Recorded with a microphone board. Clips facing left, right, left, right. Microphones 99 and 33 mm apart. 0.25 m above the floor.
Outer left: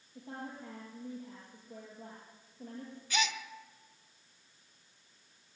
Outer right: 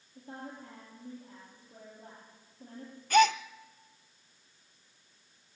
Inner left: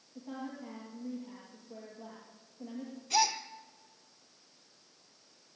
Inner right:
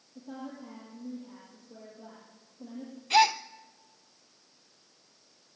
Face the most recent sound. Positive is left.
turn(degrees=-55)  # may be behind; listen again after turning